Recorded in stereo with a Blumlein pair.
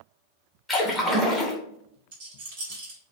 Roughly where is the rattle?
Ahead right.